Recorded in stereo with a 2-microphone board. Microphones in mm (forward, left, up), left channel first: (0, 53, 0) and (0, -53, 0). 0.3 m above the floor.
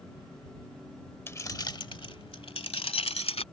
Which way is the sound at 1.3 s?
20° left (ahead or behind).